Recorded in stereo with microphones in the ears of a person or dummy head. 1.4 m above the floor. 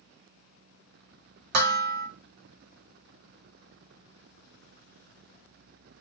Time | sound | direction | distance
1.5 | dishes clattering | 45° right (ahead or behind) | 0.8 m